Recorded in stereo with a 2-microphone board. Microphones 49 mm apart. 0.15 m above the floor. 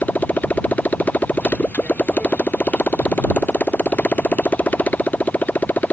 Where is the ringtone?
I don't hear a ringtone.